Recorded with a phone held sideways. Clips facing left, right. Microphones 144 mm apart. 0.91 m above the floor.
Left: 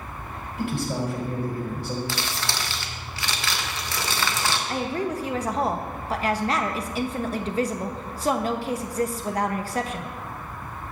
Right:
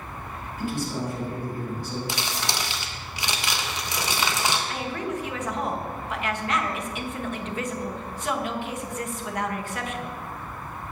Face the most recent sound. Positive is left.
turn(degrees=35)  # may be behind; listen again after turning